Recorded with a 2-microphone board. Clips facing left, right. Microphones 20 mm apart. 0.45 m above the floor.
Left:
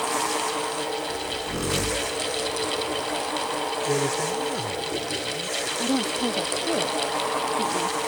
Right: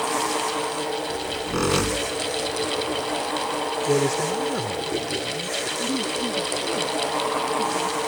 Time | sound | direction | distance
1.1 | a squeak | 35° right (ahead or behind) | ?
3.9 | a man speaking | 20° right (ahead or behind) | ?
5.8 | a woman speaking | 70° left (ahead or behind) | ?